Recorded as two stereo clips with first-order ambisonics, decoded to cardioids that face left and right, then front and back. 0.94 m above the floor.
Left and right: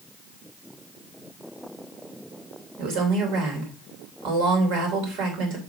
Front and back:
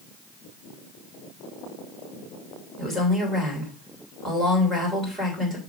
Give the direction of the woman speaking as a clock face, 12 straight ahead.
4 o'clock.